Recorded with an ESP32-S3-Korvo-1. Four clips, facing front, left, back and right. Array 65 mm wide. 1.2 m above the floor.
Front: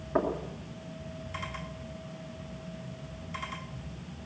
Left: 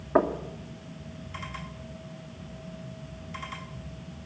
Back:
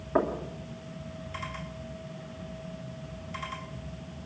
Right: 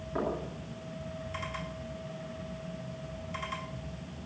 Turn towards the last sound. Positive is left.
turn(degrees=100)